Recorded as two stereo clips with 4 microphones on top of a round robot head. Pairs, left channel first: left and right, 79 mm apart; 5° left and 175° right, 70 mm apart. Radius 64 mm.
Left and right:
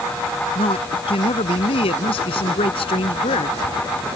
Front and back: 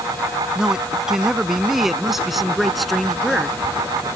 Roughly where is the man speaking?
Left.